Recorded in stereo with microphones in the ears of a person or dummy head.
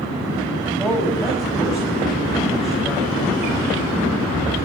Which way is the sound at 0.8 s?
Centre (ahead or behind).